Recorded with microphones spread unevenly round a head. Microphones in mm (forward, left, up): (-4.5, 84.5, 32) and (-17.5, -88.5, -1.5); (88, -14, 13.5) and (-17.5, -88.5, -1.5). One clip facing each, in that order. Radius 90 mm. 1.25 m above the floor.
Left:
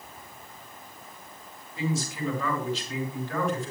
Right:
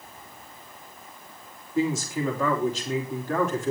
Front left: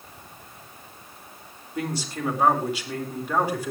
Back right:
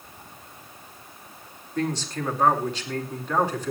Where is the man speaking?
45° right, 5 m.